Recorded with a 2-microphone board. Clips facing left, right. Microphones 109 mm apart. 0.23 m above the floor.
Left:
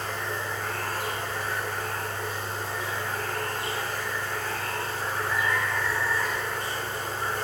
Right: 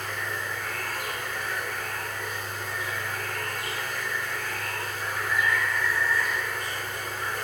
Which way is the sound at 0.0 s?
30° left (ahead or behind).